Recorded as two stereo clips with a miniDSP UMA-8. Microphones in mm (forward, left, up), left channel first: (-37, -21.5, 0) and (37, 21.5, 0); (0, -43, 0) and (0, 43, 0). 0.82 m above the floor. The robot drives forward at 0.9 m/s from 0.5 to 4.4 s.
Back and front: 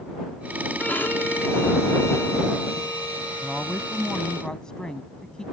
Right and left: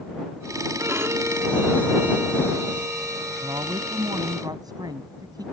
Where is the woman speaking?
125° left; by 5.4 s 130° left.